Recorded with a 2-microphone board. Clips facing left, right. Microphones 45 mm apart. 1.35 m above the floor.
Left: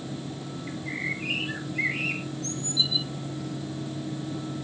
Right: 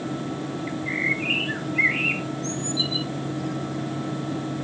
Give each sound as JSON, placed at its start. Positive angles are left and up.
{"t": 0.7, "sound": "a bird", "side_deg": -30, "distance_m": 1.4}